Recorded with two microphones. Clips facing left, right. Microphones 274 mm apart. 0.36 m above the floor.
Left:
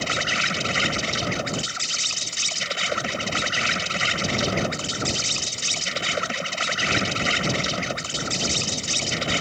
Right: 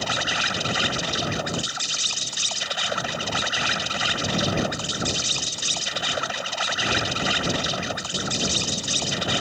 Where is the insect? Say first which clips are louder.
Left 1 dB; 30° left (ahead or behind).